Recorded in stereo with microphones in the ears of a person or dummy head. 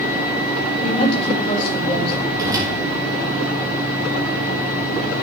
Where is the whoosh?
15° right (ahead or behind), 3 m.